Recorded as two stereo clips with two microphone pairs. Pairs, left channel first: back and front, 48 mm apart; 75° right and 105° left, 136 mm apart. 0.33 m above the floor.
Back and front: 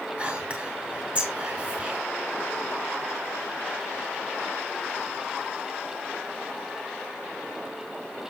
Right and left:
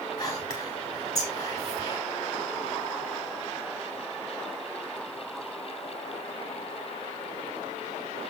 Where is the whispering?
40° right, 1.8 m.